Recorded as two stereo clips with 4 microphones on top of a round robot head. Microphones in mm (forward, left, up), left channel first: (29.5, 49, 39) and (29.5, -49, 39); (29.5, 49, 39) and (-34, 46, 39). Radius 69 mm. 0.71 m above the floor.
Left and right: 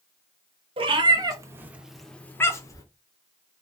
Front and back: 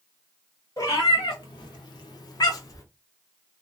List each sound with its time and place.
0.8 s a cat meowing: 55° right, 0.7 m; by 2.8 s 35° left, 0.8 m